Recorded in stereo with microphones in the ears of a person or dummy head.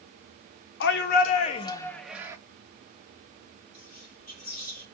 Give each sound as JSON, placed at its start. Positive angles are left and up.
{"t": 0.8, "sound": "a shout", "side_deg": 65, "distance_m": 0.7}
{"t": 3.7, "sound": "whispering", "side_deg": 50, "distance_m": 3.0}